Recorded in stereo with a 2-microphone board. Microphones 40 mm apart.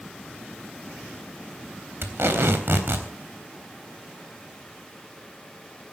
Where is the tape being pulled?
70° right (ahead or behind), 3.5 m.